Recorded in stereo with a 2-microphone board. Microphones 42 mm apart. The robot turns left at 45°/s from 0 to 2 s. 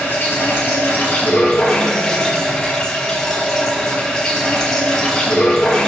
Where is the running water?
100° left, 3.5 m; by 5.9 s 10° left, 3.5 m.